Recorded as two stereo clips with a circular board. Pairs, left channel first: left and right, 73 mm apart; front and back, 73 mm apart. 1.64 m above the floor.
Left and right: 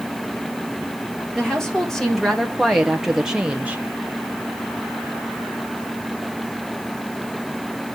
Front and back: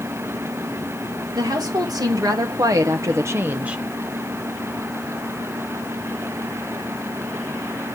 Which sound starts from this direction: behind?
A woman speaking, at 1.3 s.